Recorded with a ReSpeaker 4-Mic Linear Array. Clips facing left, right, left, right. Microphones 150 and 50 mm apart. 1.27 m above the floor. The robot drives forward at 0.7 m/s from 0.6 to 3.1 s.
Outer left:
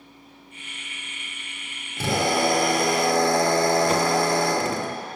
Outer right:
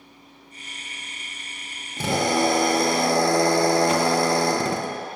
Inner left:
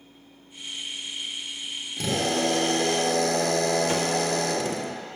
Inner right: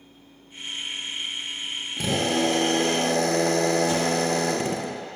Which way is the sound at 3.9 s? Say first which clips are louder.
Outer right 1 dB, inner right 1 dB; 40° left (ahead or behind).